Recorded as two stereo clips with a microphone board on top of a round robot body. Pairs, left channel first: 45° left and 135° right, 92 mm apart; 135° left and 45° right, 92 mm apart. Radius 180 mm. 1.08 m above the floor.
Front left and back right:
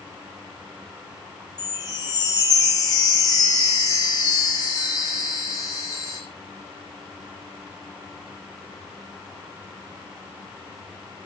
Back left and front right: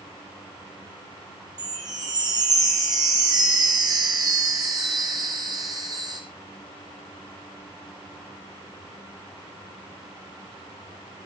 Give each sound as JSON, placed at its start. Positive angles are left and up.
{"t": 1.6, "sound": "a chime", "azimuth_deg": 0, "distance_m": 7.5}